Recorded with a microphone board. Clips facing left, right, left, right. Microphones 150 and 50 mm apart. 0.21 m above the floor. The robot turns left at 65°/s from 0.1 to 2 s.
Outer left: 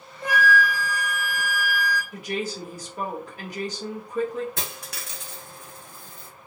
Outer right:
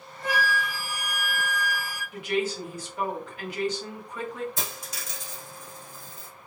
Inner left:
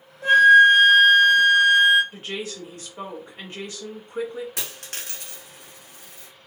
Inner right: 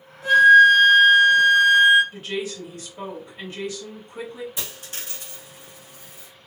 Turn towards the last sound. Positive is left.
turn(degrees=75)  # may be behind; listen again after turning